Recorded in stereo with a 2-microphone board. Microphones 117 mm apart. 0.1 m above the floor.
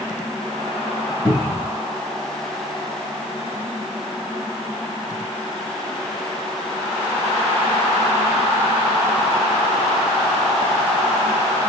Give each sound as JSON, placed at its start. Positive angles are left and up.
{"t": 1.2, "sound": "a cupboard door", "side_deg": 15, "distance_m": 1.6}